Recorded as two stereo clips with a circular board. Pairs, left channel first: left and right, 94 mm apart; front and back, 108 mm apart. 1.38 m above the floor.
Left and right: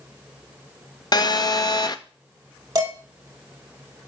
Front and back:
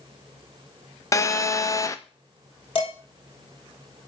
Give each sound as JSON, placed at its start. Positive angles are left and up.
{"t": 1.1, "sound": "a phone buzzing", "azimuth_deg": 55, "distance_m": 0.6}
{"t": 2.8, "sound": "dishes clattering", "azimuth_deg": -40, "distance_m": 4.5}